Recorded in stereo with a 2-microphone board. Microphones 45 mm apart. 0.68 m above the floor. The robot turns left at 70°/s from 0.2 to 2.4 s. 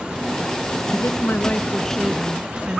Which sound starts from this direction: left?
A woman speaking, at 0.9 s.